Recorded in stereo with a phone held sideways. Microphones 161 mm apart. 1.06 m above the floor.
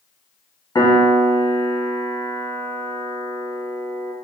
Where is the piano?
25° left (ahead or behind), 0.9 m.